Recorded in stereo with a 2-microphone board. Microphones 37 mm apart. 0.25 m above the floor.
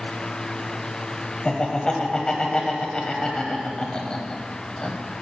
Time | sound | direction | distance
1.4 | laughter | 25° left (ahead or behind) | 1.2 m